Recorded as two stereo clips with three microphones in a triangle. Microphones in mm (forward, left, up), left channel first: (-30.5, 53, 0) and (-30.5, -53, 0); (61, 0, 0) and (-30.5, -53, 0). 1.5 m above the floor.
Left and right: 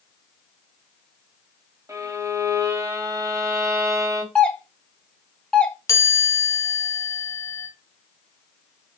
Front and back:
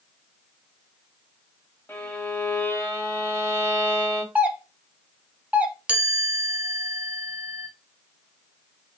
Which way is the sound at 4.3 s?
160° left.